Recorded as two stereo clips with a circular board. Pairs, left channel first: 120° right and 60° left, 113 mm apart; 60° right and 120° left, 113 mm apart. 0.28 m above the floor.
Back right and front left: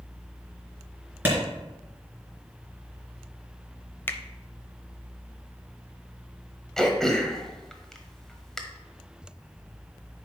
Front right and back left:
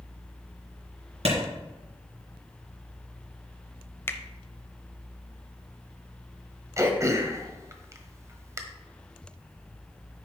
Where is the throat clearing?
160° left, 1.2 m.